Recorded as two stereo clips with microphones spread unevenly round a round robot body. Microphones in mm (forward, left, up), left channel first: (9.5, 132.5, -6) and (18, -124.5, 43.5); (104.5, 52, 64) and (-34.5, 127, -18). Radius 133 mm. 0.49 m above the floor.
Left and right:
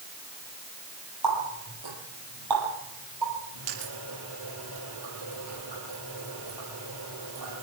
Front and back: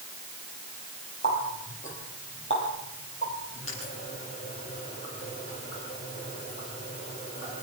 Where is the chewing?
No chewing in this recording.